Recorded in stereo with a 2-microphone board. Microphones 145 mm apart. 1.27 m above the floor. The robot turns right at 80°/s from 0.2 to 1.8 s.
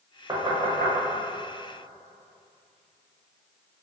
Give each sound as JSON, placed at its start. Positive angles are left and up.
{"t": 0.3, "sound": "knocking", "side_deg": -25, "distance_m": 0.6}